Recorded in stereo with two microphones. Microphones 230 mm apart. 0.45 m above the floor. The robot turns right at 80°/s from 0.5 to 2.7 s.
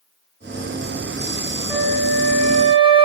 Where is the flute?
15° right (ahead or behind), 0.6 m; by 3.0 s 25° right (ahead or behind), 0.6 m.